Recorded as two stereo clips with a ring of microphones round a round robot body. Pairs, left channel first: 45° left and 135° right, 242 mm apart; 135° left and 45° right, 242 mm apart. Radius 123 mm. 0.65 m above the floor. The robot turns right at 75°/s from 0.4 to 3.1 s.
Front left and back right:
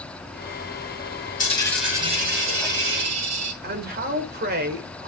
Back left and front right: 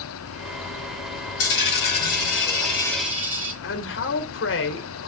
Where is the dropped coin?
105° left, 5.5 m; by 3.5 s 130° right, 5.5 m.